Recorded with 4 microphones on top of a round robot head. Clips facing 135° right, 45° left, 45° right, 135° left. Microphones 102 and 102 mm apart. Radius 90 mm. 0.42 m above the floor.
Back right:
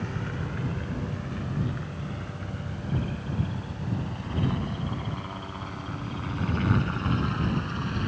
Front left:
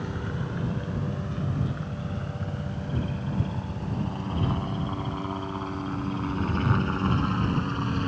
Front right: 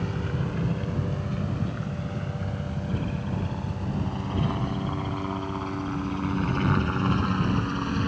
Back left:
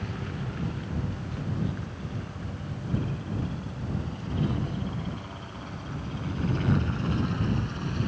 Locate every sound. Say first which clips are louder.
0.0 s a helicopter: front left 1 dB, front right 5 dB; 25° right; by 8.1 s 10° right